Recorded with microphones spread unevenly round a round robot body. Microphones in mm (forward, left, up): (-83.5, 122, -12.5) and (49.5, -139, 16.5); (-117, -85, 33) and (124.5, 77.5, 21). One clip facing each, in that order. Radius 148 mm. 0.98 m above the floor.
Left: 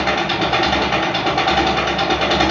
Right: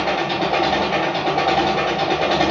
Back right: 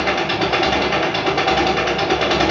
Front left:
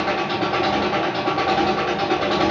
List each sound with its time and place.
0.0 s an engine running: 175° left, 2 m